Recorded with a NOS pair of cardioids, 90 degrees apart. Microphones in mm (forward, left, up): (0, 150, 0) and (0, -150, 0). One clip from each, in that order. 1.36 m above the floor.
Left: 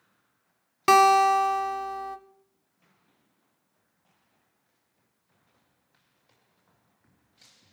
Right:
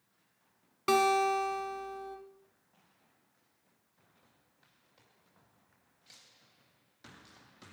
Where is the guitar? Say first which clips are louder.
Left 9 dB; 60° left, 1.0 m.